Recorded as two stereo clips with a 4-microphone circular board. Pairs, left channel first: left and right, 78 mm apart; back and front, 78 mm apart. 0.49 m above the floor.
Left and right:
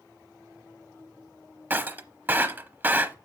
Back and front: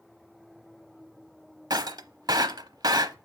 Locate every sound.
1.7 s breaking glass: 25° right, 0.8 m